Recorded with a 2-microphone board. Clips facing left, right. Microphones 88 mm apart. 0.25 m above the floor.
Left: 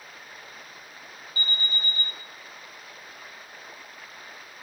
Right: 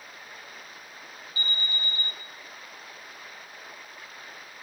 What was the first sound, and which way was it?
An alarm, 35° left (ahead or behind).